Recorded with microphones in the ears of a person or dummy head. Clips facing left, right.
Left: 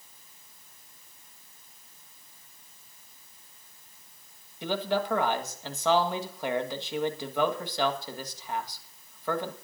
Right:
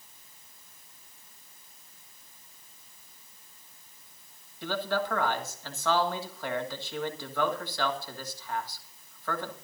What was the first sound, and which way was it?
A man speaking, 10° left (ahead or behind).